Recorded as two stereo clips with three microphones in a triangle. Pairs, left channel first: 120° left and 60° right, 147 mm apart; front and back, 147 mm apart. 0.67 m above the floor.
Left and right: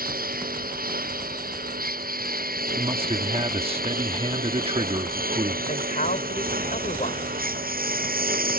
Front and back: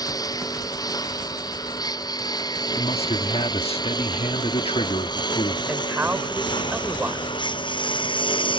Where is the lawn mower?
65° right; by 8.6 s 55° right.